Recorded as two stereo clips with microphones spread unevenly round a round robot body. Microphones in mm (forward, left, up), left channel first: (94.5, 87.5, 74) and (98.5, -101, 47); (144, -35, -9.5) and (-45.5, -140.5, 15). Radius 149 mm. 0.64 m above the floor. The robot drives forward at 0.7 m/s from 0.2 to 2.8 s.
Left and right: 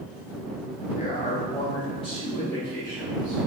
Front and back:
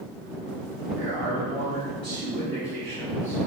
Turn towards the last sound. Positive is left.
turn(degrees=165)